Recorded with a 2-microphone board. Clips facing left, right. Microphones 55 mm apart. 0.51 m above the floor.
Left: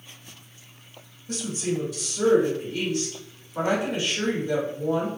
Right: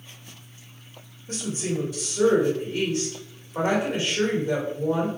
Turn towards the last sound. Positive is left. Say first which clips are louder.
# left 1 dB
turn(degrees=-30)  # may be behind; listen again after turning